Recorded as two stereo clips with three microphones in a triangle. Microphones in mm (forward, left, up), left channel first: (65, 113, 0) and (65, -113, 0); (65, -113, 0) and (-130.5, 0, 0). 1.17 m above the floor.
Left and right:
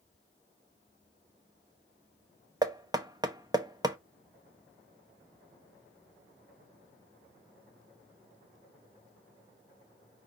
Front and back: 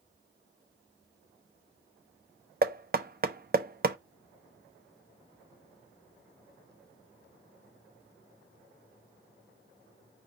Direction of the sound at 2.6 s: 160° right.